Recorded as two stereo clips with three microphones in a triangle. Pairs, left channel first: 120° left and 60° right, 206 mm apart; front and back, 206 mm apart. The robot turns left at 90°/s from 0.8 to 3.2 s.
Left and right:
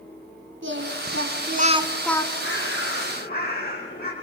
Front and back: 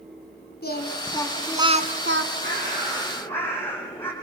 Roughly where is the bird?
Behind left.